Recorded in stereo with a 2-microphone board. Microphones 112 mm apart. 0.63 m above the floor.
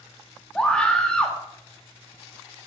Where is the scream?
10° left (ahead or behind), 0.9 m.